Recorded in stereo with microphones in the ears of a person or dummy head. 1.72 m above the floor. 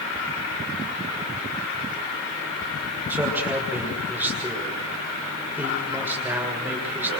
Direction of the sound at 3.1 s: 10° right (ahead or behind).